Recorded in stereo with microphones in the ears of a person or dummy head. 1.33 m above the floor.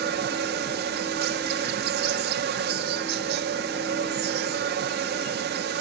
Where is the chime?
No chime in this recording.